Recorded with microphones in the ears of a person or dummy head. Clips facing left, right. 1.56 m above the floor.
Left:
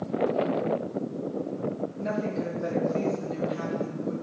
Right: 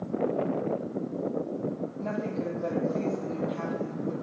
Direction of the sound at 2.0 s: 15° left (ahead or behind).